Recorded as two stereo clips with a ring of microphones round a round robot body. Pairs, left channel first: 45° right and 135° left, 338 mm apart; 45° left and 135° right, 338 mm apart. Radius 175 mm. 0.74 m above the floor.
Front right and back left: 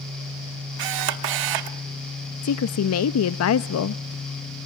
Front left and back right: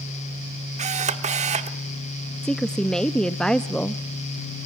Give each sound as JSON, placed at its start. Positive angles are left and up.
{"t": 0.8, "sound": "a camera shutter", "azimuth_deg": 155, "distance_m": 1.1}
{"t": 2.4, "sound": "a woman speaking", "azimuth_deg": -40, "distance_m": 0.6}